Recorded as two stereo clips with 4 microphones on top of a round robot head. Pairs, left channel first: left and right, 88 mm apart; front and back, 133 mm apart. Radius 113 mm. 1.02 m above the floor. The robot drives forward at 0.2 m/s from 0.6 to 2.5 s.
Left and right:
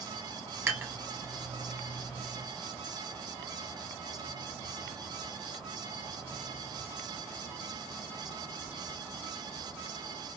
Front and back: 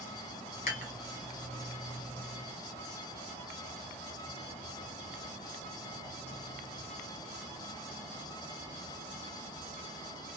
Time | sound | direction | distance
0.7 | dishes clattering | 25° right | 1.4 m